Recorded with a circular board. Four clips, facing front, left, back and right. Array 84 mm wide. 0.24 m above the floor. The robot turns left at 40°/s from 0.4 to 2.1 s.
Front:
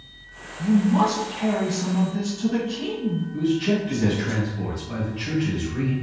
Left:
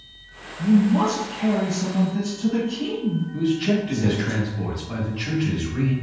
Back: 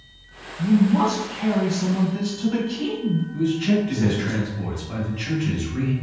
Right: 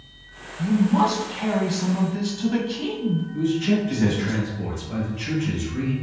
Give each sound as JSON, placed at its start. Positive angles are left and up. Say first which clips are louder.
{"t": 0.6, "sound": "a man speaking", "louder": "left 1 dB, back 1 dB", "azimuth_deg": -45, "distance_m": 1.3}
{"t": 3.3, "sound": "a man speaking", "louder": "even, even", "azimuth_deg": 65, "distance_m": 1.1}